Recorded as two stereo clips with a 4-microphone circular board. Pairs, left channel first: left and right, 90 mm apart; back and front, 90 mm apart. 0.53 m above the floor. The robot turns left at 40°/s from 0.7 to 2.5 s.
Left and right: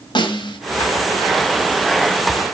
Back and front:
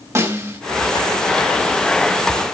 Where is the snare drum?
60° left, 2.5 m.